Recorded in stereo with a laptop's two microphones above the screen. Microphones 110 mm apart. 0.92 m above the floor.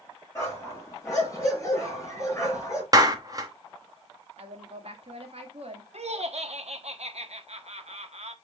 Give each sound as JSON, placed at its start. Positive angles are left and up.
{"t": 0.3, "sound": "a dog barking", "side_deg": 30, "distance_m": 5.0}
{"t": 2.9, "sound": "a clap", "side_deg": -35, "distance_m": 1.5}
{"t": 4.4, "sound": "a woman speaking", "side_deg": -65, "distance_m": 1.9}
{"t": 5.9, "sound": "laughter", "side_deg": -75, "distance_m": 1.2}